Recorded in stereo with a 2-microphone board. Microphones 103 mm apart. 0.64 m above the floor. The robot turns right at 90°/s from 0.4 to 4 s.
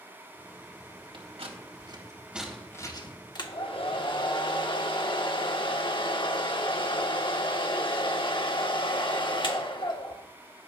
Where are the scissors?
60° right (ahead or behind), 3.5 m; by 3.2 s 60° left (ahead or behind), 3.5 m.